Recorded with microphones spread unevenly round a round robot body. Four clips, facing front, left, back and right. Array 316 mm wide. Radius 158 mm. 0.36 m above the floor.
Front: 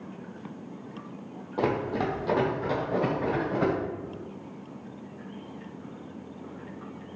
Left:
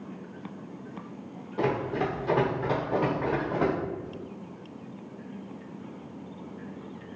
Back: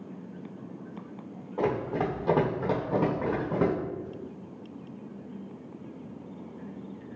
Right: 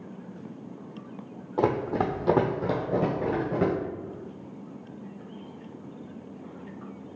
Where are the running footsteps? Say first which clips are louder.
Right 2 dB, front 1 dB; 60° right, 1.0 m; by 3.7 s 150° right, 1.4 m.